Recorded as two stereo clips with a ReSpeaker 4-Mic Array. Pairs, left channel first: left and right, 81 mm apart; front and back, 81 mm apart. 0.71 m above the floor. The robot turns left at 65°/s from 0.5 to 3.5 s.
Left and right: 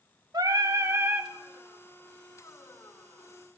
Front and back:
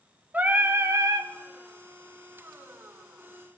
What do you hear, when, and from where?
0.3 s singing: 110° right, 0.6 m; by 1.3 s 165° right, 0.6 m